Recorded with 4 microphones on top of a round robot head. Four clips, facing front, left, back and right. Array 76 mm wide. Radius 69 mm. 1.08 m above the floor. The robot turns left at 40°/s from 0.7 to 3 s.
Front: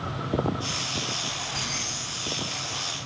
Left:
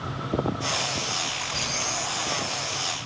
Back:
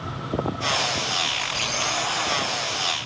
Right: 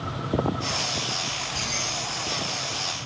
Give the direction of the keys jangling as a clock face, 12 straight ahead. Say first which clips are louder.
Even, back 5 dB; 7 o'clock.